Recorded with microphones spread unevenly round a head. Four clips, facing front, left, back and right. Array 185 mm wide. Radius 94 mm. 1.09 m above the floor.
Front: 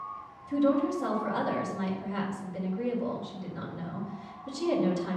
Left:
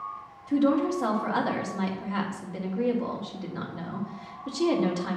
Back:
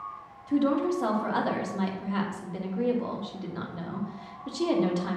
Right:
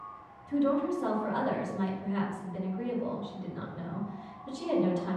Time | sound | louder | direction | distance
0.5 | a woman speaking | left 4 dB, back 1 dB | 130° left | 2.5 m